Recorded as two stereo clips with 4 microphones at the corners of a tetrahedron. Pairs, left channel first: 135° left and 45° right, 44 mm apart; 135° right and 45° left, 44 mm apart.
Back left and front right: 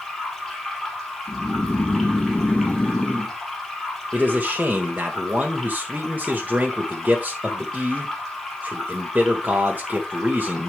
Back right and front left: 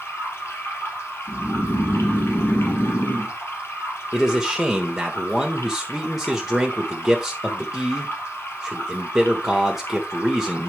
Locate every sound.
0.0 s running water: 135° right, 3 m
1.3 s snoring: 165° right, 2.5 m
4.1 s a man speaking: 40° right, 1.3 m